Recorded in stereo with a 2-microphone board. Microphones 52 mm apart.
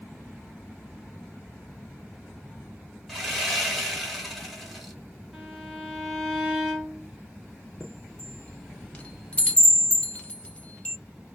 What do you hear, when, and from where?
3.1 s sawing: 5° left (ahead or behind), 1.4 m
5.3 s a violin: 5° right (ahead or behind), 1.1 m
7.8 s a chime: 25° left (ahead or behind), 0.7 m